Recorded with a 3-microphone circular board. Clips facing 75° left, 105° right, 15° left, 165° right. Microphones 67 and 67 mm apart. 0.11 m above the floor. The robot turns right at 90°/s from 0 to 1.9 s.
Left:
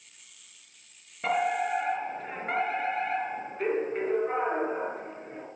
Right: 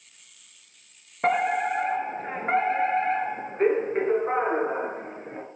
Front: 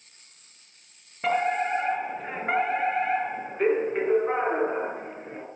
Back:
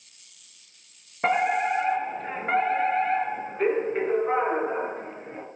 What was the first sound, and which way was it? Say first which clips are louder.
A fire alarm: right 4 dB, back 2 dB; 125° right.